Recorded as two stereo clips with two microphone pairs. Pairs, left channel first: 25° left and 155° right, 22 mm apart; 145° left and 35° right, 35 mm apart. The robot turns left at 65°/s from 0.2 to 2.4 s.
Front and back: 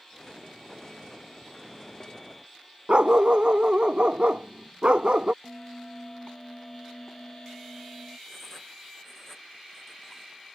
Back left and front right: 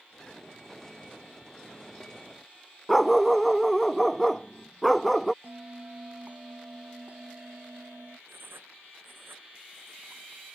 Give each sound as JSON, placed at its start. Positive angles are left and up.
{"t": 2.9, "sound": "a dog barking", "azimuth_deg": -130}
{"t": 5.4, "sound": "a bell", "azimuth_deg": -20}
{"t": 8.3, "sound": "writing", "azimuth_deg": -45}